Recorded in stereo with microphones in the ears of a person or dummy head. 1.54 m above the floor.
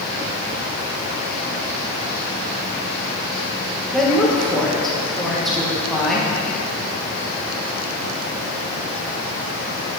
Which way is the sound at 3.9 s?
Centre (ahead or behind).